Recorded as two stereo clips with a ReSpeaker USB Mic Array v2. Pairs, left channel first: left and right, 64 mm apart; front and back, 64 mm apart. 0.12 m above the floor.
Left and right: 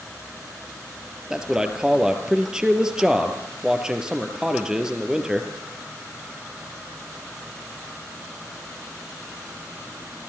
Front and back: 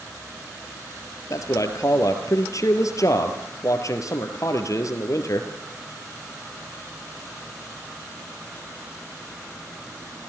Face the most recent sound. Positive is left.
turn(degrees=-15)